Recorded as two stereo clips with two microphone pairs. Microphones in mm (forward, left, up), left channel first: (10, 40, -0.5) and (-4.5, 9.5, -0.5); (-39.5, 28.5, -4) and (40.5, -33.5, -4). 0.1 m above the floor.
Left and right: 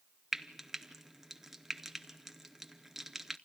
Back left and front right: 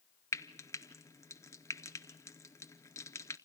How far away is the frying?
About 0.7 m.